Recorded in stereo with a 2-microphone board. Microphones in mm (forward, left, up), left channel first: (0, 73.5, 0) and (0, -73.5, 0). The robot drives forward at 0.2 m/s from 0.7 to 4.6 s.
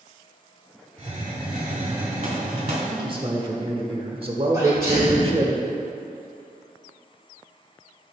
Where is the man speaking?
35° right (ahead or behind), 1.1 m; by 5.5 s 40° right (ahead or behind), 0.9 m.